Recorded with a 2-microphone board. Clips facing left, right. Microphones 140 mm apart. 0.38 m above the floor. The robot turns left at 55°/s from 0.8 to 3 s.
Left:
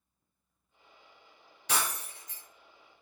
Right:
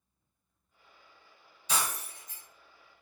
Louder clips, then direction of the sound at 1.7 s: Even; 110° left.